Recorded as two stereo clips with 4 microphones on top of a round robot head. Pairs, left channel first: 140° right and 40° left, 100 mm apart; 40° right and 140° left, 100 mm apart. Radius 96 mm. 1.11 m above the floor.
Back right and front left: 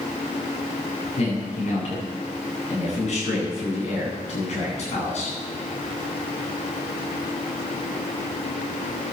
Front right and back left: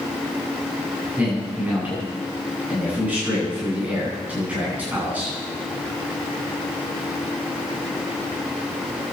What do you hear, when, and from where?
1.2 s a man speaking: 145° right, 10 m